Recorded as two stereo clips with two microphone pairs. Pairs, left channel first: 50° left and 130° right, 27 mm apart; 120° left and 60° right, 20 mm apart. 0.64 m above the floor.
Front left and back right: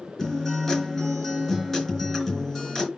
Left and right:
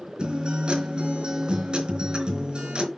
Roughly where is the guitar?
Ahead right.